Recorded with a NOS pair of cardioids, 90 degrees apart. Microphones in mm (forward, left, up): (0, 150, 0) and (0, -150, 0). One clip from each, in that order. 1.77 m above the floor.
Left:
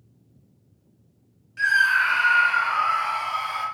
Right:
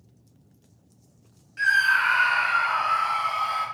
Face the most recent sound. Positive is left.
turn(degrees=10)